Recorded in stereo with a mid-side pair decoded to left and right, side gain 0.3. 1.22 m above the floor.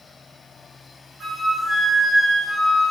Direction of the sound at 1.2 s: 55° right.